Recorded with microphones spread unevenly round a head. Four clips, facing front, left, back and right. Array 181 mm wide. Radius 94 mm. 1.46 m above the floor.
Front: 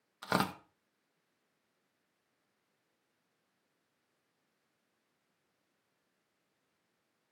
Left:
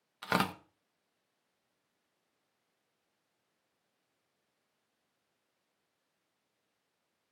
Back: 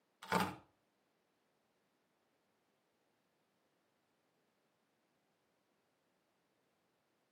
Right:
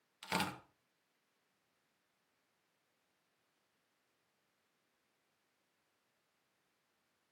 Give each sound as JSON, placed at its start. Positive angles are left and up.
{"t": 0.2, "sound": "tearing paper", "azimuth_deg": 35, "distance_m": 2.0}